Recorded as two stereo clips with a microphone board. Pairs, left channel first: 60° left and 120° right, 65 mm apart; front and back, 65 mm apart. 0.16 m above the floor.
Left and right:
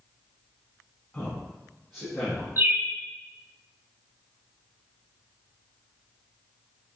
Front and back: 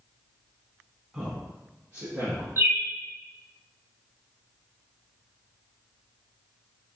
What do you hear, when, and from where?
1.1 s a man speaking: 110° left, 1.1 m; by 2.5 s 150° left, 2.5 m
2.6 s a bird: 150° right, 0.9 m